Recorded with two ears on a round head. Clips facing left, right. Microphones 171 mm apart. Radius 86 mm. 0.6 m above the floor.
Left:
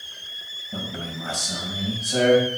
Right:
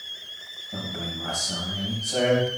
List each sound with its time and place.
0.7 s a man speaking: 10° left (ahead or behind), 3 m